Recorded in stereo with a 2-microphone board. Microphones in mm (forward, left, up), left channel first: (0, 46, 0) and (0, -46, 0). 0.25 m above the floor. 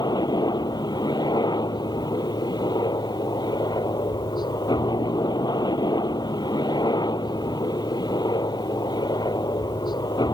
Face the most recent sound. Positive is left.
turn(degrees=50)  # may be behind; listen again after turning